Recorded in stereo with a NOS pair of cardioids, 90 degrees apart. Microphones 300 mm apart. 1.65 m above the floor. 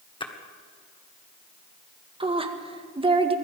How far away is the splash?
About 1.8 m.